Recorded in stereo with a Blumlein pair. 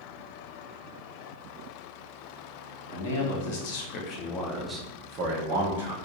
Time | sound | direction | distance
2.9 | a man speaking | 65° left | 1.1 m